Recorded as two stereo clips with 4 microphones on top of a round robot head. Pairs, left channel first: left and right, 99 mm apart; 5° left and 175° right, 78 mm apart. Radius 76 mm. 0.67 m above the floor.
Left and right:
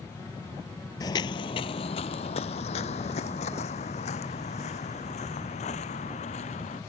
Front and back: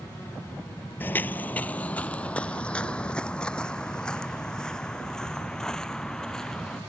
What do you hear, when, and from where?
1.0 s footsteps: 55° left; by 6.8 s 85° left